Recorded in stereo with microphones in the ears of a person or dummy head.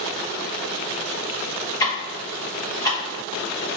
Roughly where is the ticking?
Left.